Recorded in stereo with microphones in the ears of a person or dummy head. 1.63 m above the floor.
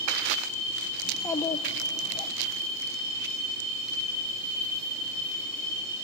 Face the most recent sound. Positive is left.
turn(degrees=20)  # may be behind; listen again after turning